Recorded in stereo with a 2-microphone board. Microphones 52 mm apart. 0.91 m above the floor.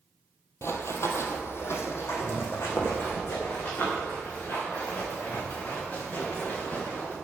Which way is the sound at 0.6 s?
55° left (ahead or behind).